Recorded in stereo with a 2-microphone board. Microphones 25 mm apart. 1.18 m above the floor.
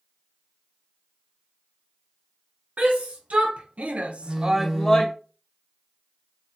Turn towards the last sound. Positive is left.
turn(degrees=-15)  # may be behind; listen again after turning